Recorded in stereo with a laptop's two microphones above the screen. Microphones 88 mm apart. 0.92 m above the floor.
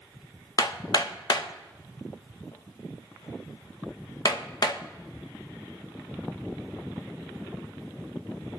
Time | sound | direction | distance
0.6 | hammering | 50° left (ahead or behind) | 0.7 m